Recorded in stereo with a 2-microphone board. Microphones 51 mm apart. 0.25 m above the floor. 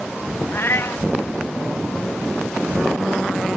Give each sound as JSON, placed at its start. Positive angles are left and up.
{"t": 0.5, "sound": "a cat meowing", "side_deg": 50}